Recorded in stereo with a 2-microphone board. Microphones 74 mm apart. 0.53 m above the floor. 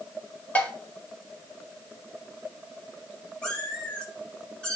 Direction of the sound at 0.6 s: 20° left (ahead or behind).